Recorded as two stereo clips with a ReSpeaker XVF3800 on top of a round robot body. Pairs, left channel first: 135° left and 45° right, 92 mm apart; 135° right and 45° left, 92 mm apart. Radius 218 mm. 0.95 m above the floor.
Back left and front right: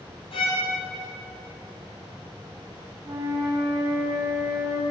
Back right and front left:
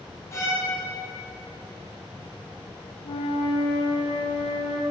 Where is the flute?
105° right, 1.5 m.